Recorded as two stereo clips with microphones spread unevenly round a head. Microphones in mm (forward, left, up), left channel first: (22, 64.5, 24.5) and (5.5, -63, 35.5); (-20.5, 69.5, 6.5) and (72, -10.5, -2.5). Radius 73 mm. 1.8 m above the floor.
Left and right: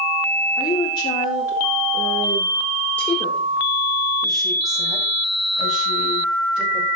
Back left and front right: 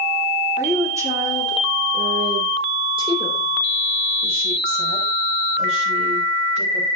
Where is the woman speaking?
30° left, 2.5 m; by 6.9 s 15° right, 4.5 m.